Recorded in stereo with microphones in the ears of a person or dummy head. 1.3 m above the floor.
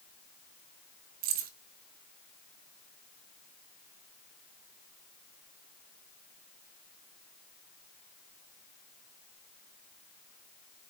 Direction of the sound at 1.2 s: 50° right (ahead or behind).